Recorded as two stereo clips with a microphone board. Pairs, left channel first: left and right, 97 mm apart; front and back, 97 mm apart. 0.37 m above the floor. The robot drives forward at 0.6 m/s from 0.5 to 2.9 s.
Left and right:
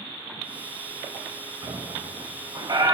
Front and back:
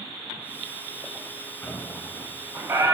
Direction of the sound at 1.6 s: 60° right.